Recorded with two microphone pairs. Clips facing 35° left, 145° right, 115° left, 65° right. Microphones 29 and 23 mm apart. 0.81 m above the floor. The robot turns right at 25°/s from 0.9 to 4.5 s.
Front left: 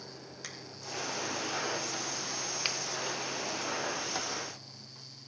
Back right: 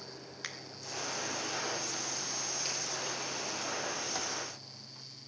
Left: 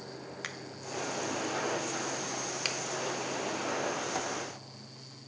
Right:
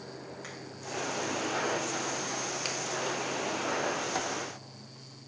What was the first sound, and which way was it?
A finger snap, 150° left.